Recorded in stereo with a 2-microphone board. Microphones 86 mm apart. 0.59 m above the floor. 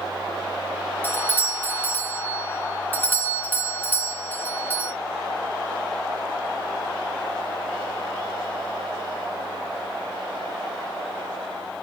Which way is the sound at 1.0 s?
20° left (ahead or behind).